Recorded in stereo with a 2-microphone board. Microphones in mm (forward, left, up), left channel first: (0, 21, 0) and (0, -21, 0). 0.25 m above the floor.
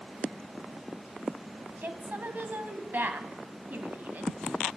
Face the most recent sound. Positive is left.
turn(degrees=-50)  # may be behind; listen again after turning